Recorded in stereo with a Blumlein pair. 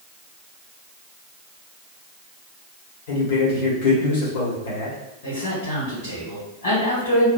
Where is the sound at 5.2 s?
55° left, 1.6 m.